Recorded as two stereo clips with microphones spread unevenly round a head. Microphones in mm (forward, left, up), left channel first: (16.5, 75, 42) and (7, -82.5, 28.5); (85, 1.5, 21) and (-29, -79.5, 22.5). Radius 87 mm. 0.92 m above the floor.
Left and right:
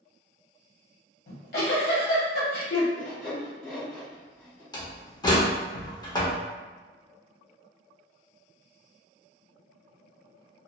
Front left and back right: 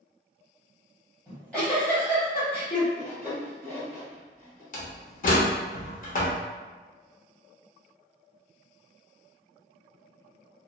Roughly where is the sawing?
Left.